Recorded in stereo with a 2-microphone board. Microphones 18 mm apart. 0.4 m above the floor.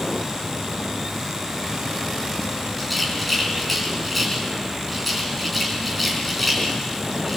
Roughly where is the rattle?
Centre.